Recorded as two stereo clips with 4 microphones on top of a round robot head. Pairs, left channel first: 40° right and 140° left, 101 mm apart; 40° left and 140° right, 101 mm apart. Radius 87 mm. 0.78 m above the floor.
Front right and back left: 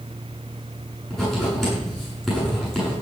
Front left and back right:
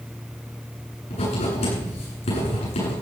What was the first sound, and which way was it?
Writing, 50° left.